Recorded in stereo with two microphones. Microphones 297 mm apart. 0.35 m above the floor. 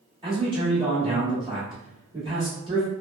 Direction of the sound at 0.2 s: 15° right (ahead or behind).